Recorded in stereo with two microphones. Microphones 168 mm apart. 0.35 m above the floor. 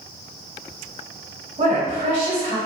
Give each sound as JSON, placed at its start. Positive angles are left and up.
{"t": 1.6, "sound": "a woman speaking", "side_deg": -45, "distance_m": 1.8}